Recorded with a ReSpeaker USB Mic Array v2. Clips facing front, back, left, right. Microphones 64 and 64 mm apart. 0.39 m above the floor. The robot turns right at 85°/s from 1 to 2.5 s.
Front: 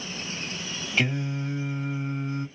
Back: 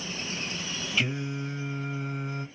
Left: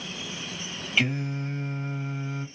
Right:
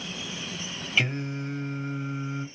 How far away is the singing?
About 2 m.